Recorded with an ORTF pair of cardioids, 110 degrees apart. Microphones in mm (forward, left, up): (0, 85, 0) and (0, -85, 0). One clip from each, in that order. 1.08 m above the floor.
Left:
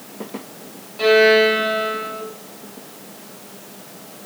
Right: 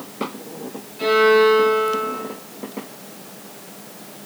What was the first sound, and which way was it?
A violin, 45° left.